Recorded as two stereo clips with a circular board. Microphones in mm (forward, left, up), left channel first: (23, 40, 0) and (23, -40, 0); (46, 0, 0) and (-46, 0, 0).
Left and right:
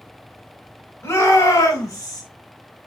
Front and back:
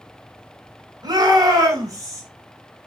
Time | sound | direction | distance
1.0 | a shout | 140° left | 5 m